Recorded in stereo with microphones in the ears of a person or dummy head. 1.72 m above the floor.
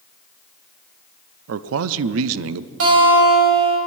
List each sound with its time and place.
1.5 s a man speaking: 75° right (ahead or behind), 0.5 m
2.8 s a guitar: 75° right (ahead or behind), 4.5 m